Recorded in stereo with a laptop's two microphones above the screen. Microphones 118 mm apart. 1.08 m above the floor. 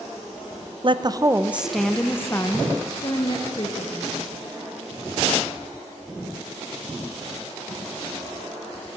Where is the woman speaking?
45° right (ahead or behind), 0.8 m; by 4.1 s 45° left (ahead or behind), 2.0 m.